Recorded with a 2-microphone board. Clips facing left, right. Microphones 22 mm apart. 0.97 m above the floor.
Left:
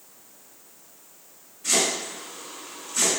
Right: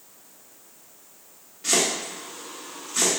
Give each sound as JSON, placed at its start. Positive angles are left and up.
{"t": 1.6, "sound": "chopping", "side_deg": -55, "distance_m": 1.5}